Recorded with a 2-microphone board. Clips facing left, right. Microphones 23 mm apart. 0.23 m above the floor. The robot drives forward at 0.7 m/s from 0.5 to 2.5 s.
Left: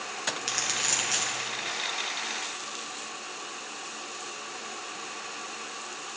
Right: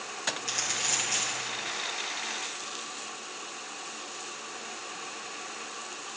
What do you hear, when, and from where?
0.4 s crumpling: 55° left (ahead or behind), 2 m; by 1.5 s 45° left (ahead or behind), 2.5 m